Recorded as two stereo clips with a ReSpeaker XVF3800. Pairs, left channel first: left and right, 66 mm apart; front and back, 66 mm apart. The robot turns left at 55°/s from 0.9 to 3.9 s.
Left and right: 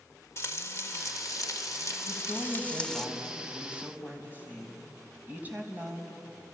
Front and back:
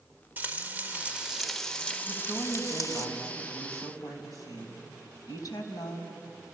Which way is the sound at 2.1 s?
75° left.